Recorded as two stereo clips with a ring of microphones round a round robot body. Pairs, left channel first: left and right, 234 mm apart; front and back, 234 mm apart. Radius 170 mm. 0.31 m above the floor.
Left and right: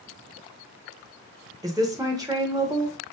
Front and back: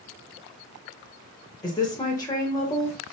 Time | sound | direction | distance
1.6 | a woman speaking | 40° right | 0.9 m